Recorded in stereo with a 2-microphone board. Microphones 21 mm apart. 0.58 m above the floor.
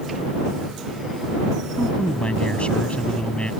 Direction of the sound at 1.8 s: 60° left (ahead or behind).